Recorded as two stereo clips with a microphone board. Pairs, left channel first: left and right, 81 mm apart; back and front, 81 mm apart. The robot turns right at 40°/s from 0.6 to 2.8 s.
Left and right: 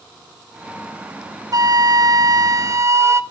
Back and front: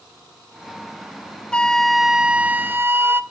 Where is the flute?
105° right, 0.8 m; by 3.2 s 55° right, 0.8 m.